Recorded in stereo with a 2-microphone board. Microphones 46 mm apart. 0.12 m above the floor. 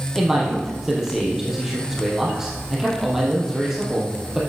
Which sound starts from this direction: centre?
A man speaking, at 0.1 s.